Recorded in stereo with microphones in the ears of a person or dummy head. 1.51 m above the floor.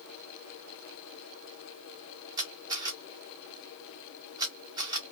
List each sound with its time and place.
2.4 s a camera shutter: 15° right (ahead or behind), 0.9 m